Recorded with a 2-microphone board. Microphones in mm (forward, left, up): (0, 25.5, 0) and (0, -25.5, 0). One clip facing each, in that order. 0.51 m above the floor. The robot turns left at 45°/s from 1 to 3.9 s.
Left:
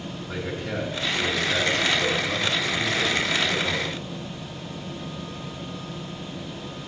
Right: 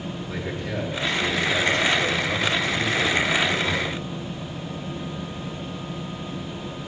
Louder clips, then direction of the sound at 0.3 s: Left 1 dB; 85° left.